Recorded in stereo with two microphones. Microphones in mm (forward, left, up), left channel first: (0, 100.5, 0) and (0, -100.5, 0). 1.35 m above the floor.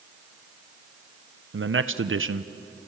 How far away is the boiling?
I don't hear boiling.